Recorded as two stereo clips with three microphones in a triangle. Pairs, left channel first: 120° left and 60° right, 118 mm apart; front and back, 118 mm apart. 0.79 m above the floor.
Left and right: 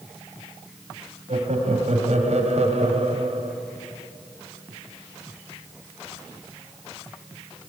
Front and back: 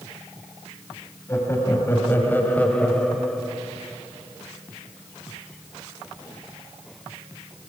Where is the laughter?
65° right, 5 m; by 3.5 s 90° right, 3.5 m.